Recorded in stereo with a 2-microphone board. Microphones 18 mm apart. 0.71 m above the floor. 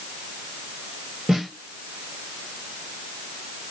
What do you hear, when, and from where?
1.3 s a snare drum: 40° right (ahead or behind), 1.8 m